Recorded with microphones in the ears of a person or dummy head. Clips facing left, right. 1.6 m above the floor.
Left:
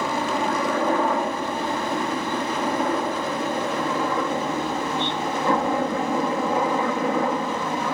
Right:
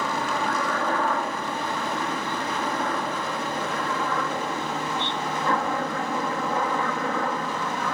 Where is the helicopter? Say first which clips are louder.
Left 3 dB; 20° left (ahead or behind).